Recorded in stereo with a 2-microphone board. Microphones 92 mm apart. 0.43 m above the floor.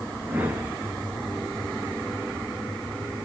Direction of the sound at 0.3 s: 20° right (ahead or behind).